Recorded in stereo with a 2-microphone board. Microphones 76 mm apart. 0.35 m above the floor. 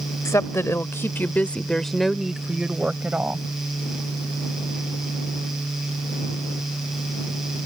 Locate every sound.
0.2 s a woman speaking: 40° left (ahead or behind); by 3.5 s 25° right (ahead or behind)